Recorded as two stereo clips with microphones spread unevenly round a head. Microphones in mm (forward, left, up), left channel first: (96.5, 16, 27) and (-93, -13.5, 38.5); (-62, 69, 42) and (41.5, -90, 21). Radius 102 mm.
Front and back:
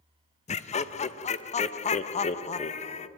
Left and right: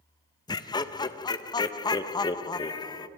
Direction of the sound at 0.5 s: 55° left.